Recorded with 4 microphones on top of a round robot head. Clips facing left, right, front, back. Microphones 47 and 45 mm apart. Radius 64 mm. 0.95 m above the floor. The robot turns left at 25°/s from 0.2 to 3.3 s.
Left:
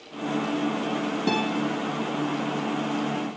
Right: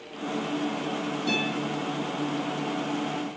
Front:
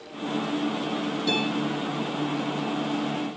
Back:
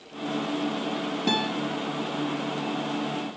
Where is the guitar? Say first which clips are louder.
Left 3 dB, even; 140° left, 5 m; by 1.5 s 135° left, 5 m.